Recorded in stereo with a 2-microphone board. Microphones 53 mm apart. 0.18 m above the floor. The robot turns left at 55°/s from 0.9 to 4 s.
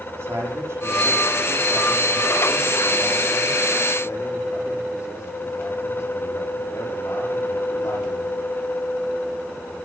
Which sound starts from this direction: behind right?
A man speaking, at 0.1 s.